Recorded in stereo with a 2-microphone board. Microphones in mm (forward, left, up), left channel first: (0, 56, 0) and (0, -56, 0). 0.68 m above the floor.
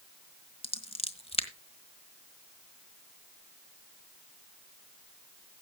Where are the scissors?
60° left (ahead or behind), 1.4 m.